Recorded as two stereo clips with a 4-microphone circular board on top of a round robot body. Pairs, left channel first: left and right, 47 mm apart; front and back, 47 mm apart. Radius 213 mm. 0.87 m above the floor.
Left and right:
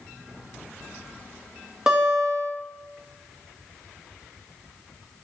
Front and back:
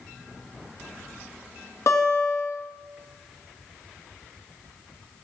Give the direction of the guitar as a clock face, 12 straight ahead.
12 o'clock.